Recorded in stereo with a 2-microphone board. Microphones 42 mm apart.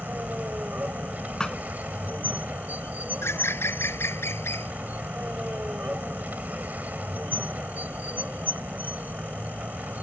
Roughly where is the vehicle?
Right.